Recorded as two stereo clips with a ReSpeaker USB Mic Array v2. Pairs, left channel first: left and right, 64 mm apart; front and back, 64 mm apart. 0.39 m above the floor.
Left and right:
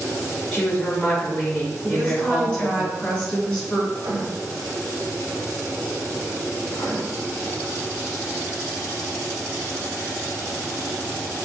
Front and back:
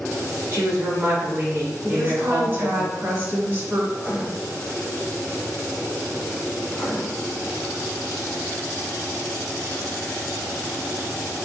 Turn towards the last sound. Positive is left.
turn(degrees=90)